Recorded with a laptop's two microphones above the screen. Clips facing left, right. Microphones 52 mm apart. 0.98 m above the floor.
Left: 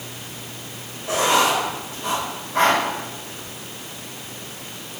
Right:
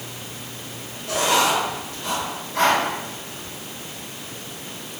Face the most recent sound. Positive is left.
turn(degrees=30)  # may be behind; listen again after turning